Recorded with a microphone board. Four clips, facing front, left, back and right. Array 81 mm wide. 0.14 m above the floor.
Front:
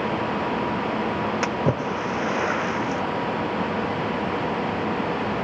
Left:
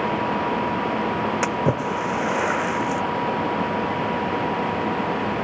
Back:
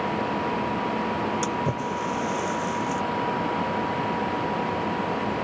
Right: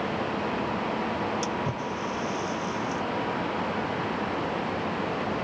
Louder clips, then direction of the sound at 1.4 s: Left 8 dB, front 3 dB; 60° left.